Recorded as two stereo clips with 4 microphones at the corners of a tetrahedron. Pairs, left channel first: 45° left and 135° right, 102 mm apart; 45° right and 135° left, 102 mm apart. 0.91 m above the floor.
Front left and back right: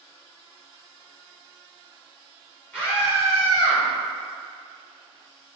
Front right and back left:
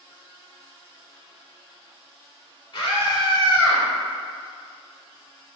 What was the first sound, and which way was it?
A scream, 25° right.